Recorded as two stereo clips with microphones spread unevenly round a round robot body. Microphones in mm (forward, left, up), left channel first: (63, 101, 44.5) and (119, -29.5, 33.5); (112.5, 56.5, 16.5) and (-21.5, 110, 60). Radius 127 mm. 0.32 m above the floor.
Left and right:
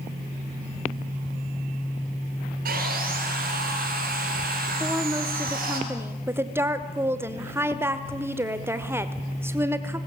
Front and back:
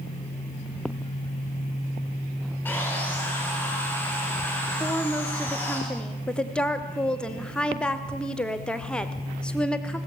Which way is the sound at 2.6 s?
100° right.